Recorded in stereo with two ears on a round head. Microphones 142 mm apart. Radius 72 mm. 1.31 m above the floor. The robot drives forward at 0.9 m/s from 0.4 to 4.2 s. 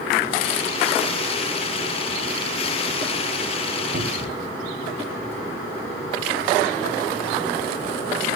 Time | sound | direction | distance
3.9 | a cupboard door | 50° right (ahead or behind) | 3.5 m